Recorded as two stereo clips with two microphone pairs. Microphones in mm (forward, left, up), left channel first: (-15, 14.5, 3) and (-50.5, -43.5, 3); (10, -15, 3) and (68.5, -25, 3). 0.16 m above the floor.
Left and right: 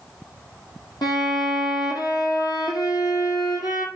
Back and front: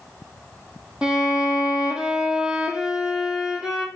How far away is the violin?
About 1.9 m.